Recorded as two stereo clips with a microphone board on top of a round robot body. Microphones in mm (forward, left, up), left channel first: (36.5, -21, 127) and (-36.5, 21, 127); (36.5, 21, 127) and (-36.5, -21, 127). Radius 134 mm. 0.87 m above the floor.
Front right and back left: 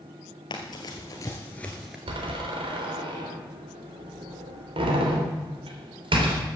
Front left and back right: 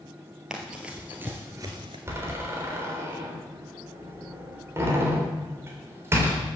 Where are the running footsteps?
70° right, 1.4 m; by 2.0 s 130° right, 0.9 m.